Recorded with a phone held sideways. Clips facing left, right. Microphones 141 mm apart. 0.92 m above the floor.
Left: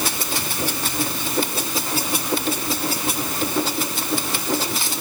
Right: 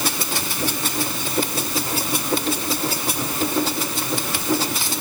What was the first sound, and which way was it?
Only background noise.